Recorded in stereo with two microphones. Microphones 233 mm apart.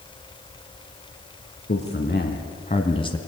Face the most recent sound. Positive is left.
turn(degrees=15)  # may be behind; listen again after turning